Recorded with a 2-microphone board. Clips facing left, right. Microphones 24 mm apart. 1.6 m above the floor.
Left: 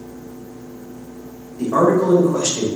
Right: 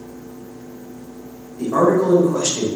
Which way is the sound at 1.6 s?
10° left (ahead or behind).